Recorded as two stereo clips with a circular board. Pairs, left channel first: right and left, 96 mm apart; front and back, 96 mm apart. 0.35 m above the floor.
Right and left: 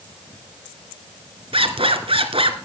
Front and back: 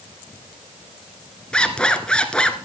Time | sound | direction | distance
1.5 | a zipper | 80° left | 1.3 m